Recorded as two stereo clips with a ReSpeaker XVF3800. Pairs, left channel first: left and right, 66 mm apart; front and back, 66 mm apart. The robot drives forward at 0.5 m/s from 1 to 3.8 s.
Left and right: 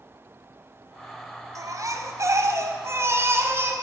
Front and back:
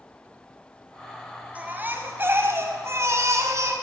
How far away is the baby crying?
About 1.5 m.